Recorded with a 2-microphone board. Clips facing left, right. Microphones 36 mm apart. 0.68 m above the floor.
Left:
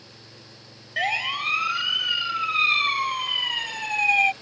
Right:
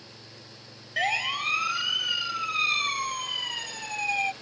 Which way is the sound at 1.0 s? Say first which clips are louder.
Left 2 dB; 5° left (ahead or behind).